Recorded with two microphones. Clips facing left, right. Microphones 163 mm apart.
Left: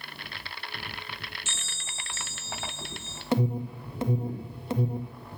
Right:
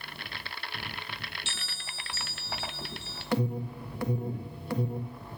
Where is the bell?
45° left (ahead or behind), 1.7 m.